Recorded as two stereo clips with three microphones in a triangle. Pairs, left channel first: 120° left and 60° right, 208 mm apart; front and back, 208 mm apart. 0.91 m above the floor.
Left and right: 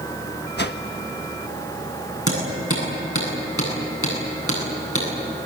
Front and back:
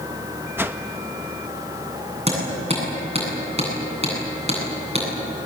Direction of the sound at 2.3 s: 120° left.